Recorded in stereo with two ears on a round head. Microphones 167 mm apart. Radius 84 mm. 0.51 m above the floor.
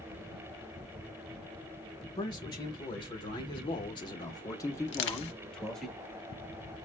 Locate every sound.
2.2 s a man speaking: 25° left (ahead or behind), 1.5 m; by 5.9 s centre (ahead or behind), 0.9 m
4.9 s crushing: 70° left (ahead or behind), 0.8 m